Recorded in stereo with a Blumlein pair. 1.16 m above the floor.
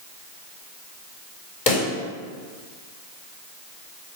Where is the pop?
45° left, 3.5 m.